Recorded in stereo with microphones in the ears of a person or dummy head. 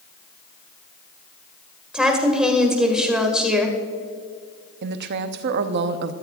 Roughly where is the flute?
No flute in this recording.